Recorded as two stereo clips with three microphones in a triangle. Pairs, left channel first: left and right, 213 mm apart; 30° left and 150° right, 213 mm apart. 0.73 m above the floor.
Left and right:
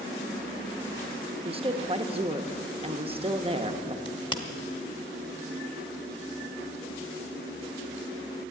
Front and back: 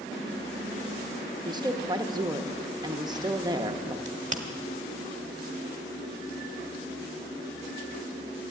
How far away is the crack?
About 1.1 m.